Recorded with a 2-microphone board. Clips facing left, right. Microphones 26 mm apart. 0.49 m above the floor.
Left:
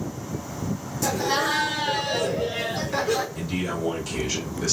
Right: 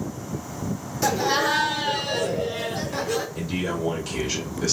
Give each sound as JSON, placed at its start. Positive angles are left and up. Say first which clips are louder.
{"t": 1.0, "sound": "laughter", "louder": "right 2 dB", "side_deg": -30, "distance_m": 0.9}
{"t": 3.4, "sound": "a man speaking", "louder": "right 1 dB", "side_deg": -10, "distance_m": 2.0}